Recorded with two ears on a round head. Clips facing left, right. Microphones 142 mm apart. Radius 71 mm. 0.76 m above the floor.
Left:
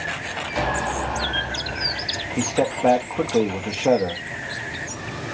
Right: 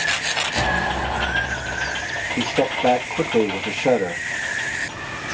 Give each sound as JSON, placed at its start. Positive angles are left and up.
{"t": 0.6, "sound": "an explosion", "side_deg": -10, "distance_m": 2.5}
{"t": 2.4, "sound": "a man speaking", "side_deg": 0, "distance_m": 0.9}